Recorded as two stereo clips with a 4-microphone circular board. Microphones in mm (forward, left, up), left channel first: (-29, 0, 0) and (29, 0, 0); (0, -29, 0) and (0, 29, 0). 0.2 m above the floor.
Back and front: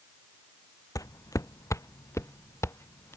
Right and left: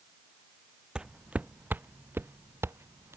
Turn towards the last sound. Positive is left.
turn(degrees=135)